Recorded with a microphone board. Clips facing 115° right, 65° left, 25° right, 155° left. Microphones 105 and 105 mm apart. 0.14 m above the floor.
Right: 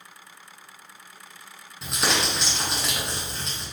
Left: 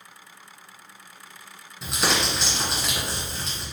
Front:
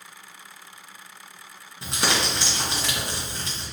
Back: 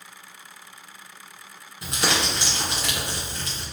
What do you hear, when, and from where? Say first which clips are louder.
1.8 s crumpling: left 1 dB, even; 20° right, 1.9 m